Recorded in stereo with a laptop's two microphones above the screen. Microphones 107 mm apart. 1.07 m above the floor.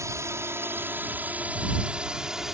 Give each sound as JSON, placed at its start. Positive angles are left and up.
{"t": 0.0, "sound": "a drone", "side_deg": -25}